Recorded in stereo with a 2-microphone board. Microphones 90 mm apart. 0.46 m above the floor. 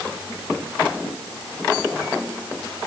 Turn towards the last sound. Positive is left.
No sound to turn to.